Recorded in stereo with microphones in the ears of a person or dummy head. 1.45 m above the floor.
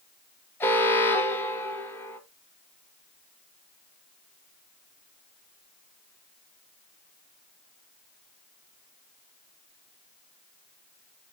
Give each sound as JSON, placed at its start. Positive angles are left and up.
{"t": 0.6, "sound": "an alarm", "side_deg": 10, "distance_m": 1.3}